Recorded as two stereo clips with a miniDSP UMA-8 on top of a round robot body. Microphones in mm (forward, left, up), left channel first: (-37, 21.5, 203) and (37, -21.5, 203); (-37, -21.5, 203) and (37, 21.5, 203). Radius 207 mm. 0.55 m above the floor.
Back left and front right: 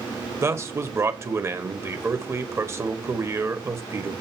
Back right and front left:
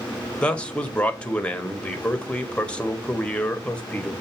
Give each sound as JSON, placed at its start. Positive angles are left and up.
{"t": 0.4, "sound": "a man speaking", "azimuth_deg": -75, "distance_m": 1.4}